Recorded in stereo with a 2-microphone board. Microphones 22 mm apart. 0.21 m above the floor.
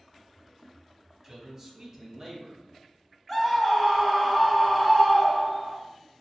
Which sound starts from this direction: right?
A man speaking, at 1.2 s.